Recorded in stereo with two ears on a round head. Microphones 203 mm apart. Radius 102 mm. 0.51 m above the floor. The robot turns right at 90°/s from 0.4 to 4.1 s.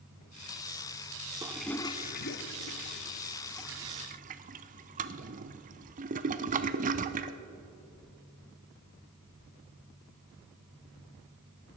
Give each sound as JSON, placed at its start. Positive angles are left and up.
{"t": 1.4, "sound": "a toilet flushing", "side_deg": -15, "distance_m": 0.6}